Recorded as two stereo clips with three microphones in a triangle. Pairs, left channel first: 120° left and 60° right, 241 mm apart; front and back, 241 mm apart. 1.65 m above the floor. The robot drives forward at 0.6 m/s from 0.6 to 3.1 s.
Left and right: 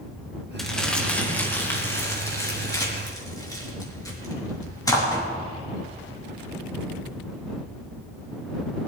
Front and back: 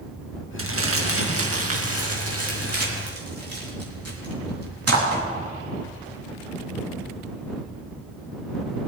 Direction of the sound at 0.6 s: 150° right.